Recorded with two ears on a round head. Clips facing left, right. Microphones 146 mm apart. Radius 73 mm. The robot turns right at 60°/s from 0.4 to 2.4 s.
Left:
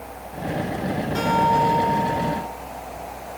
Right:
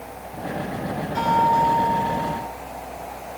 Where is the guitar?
120° left, 9 m; by 2.4 s 165° right, 9 m.